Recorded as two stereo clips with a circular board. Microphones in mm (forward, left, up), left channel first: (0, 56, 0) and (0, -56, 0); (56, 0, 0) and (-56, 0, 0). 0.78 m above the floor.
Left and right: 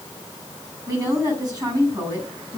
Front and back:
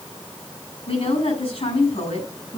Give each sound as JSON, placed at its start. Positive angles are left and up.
{"t": 0.9, "sound": "a woman speaking", "azimuth_deg": -35, "distance_m": 6.0}